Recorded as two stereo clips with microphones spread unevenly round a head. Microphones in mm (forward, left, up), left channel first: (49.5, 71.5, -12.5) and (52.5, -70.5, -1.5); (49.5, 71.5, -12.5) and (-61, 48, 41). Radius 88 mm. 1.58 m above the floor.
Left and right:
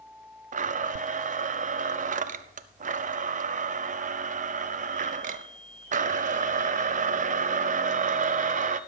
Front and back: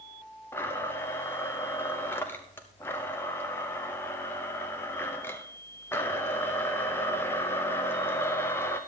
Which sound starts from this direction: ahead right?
A blender, at 0.5 s.